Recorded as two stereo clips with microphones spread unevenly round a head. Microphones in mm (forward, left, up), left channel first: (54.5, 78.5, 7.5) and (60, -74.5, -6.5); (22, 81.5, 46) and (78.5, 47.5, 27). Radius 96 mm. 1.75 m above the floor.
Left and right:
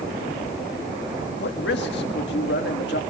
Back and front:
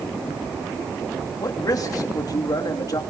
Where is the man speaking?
125° left, 3 m.